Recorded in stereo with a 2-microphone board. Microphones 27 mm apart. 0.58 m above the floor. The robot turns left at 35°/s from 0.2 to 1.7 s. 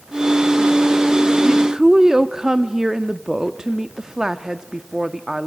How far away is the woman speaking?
About 0.6 m.